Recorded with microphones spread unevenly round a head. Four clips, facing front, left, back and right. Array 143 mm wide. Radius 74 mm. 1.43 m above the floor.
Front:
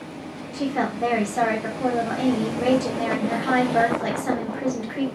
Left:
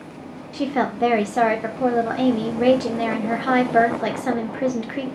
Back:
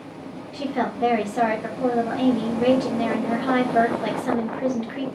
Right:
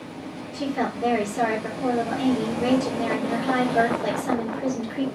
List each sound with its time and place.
0.5 s a woman speaking: 80° left, 0.7 m